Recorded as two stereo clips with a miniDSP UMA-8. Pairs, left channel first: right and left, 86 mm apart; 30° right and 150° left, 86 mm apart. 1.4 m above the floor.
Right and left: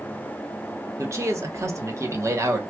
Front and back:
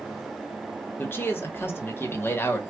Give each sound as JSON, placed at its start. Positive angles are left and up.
{"t": 1.0, "sound": "a man speaking", "azimuth_deg": 35, "distance_m": 1.0}